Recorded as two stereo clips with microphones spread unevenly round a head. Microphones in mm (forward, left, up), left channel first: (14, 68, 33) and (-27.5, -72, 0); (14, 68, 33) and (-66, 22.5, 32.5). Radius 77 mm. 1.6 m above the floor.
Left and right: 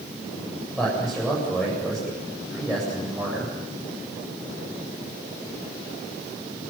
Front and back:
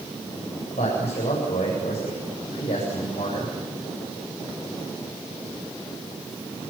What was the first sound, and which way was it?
A man speaking, 10° right.